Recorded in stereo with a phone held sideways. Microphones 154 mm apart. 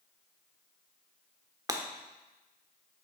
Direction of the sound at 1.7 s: 25° right (ahead or behind).